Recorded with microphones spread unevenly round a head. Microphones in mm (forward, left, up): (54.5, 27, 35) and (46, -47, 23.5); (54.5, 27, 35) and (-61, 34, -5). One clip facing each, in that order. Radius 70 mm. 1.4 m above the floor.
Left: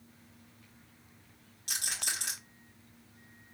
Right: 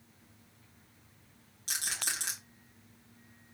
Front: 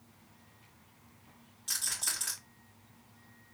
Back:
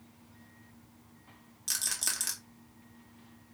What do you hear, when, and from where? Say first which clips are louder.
1.7 s a rattle: right 1 dB, back 2 dB; 135° right, 1.0 m